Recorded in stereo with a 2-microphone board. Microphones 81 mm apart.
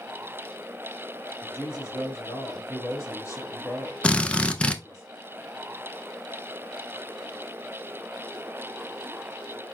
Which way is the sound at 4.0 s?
15° left (ahead or behind).